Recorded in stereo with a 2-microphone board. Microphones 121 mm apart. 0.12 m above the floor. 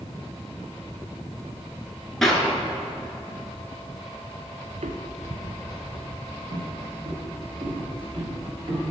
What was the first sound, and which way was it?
A clap, 5° left (ahead or behind).